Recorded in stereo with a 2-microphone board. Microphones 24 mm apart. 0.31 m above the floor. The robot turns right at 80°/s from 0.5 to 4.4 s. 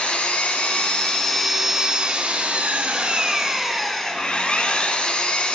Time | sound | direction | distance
0.0 | an engine running | 100° left | 1.6 m